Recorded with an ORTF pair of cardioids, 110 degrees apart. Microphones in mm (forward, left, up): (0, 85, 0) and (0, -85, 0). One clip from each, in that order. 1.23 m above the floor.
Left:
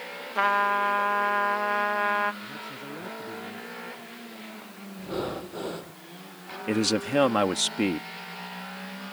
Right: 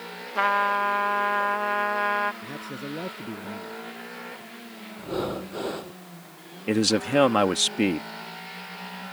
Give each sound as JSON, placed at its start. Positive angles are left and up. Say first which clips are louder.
{"t": 0.3, "sound": "a trumpet", "louder": "right 1 dB", "azimuth_deg": 0}
{"t": 2.4, "sound": "a man speaking", "louder": "right 2 dB", "azimuth_deg": -40}
{"t": 5.0, "sound": "breathing", "louder": "right 2 dB", "azimuth_deg": -15}
{"t": 6.7, "sound": "a man speaking", "louder": "right 3 dB", "azimuth_deg": -15}